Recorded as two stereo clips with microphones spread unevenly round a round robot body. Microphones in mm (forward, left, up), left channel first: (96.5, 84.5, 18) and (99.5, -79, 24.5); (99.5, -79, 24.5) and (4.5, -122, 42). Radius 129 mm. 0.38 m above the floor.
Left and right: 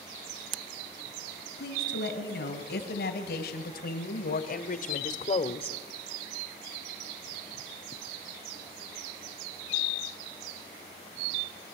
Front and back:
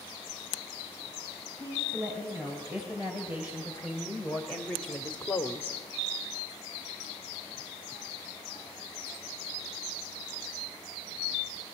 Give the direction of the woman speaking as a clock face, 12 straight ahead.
8 o'clock.